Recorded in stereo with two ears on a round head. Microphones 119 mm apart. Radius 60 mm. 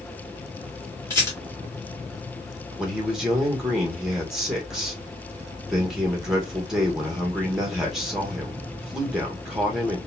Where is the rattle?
20° left (ahead or behind), 1.9 m.